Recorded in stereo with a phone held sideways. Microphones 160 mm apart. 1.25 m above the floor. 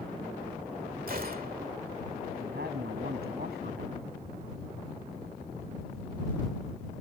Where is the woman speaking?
90° right.